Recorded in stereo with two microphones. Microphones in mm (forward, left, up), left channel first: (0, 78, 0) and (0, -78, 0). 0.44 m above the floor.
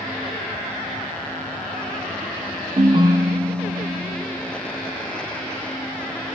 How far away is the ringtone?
About 0.5 m.